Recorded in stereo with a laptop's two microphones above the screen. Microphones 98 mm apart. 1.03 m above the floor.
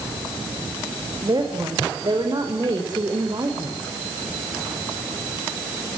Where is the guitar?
I don't hear a guitar.